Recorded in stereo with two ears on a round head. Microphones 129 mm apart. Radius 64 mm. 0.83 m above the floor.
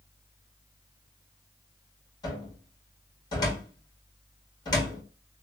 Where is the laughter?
No laughter in this recording.